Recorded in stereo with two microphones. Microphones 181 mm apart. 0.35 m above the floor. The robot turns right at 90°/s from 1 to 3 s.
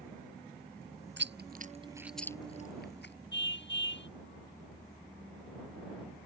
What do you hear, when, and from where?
1.2 s chewing: 85° right; by 3.1 s 75° left (ahead or behind)
3.3 s a car horn: 85° left